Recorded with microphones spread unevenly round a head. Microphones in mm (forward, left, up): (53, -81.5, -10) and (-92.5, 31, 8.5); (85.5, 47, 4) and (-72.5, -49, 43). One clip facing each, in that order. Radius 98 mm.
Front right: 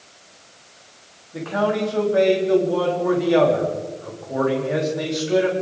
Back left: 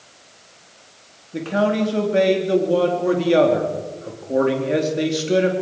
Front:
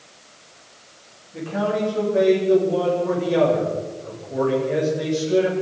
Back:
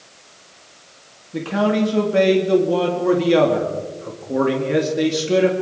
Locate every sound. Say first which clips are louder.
1.3 s a man speaking: back left 2 dB, back 5 dB; 165° right, 3.5 m